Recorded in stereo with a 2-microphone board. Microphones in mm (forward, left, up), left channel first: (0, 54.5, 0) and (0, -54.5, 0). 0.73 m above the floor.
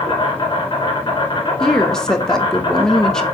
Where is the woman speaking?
5° left (ahead or behind), 0.6 m.